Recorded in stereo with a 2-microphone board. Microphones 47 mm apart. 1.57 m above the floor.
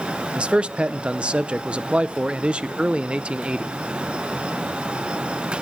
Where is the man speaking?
25° right (ahead or behind), 0.6 m.